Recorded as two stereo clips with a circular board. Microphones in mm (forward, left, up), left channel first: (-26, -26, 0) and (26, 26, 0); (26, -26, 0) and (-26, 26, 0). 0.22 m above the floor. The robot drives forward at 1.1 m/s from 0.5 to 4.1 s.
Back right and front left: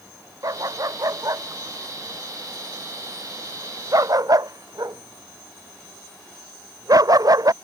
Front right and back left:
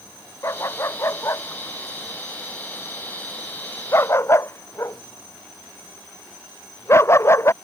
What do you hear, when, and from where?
0.4 s a dog barking: 5° left; by 7.5 s 10° left